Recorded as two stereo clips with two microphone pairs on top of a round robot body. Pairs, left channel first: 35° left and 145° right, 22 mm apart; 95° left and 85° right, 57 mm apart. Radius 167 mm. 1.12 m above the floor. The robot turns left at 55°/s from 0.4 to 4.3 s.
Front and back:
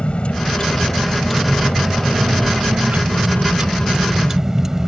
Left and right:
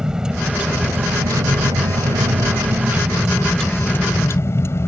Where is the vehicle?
10° right; by 4.9 s 140° left.